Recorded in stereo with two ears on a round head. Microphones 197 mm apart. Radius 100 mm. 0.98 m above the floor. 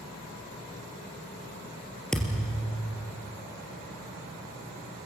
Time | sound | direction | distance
2.1 | a thud | 5° left (ahead or behind) | 3 m